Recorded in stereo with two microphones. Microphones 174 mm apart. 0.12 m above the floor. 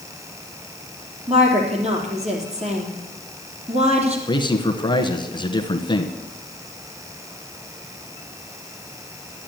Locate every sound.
1.3 s a woman speaking: 40° right (ahead or behind), 3 m
4.3 s a man speaking: 25° left (ahead or behind), 1.2 m